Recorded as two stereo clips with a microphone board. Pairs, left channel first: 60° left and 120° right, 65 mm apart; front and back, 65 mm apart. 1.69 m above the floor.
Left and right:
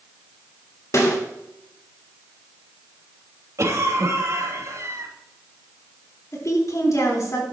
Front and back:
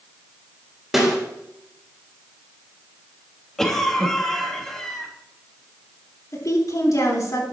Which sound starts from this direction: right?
A cough, at 3.6 s.